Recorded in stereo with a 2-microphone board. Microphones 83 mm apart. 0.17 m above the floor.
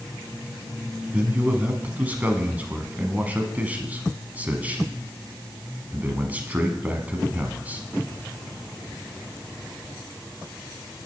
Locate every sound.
1.1 s a man speaking: 20° right (ahead or behind), 1.1 m